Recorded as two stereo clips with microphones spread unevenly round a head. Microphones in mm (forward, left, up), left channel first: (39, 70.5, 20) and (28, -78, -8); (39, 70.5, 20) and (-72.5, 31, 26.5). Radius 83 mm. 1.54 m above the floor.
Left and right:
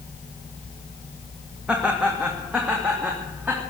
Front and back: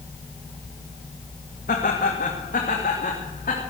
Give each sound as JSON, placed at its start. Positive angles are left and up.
{"t": 1.7, "sound": "laughter", "azimuth_deg": -10, "distance_m": 2.0}